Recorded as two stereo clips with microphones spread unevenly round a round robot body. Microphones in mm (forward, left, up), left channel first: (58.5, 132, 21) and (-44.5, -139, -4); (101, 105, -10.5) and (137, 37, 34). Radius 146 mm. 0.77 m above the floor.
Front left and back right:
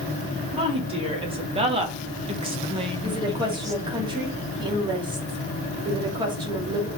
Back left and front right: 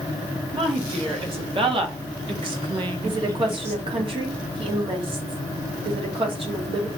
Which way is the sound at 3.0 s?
40° right.